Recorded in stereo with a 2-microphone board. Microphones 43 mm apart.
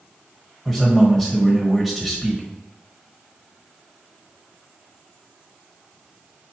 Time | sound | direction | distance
0.7 | a man speaking | 5° right (ahead or behind) | 1.1 m